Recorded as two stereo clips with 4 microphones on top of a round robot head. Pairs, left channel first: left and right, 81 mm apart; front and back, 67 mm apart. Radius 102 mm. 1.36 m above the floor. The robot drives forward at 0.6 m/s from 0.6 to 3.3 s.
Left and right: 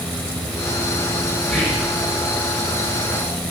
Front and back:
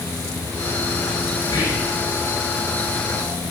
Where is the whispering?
10° left, 6.5 m.